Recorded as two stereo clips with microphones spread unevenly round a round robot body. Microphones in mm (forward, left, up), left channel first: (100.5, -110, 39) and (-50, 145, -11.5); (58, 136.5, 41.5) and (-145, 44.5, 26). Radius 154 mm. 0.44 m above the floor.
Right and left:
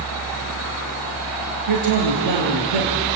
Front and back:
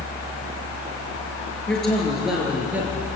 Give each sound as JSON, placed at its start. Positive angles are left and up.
{"t": 1.7, "sound": "a man speaking", "azimuth_deg": 110, "distance_m": 8.0}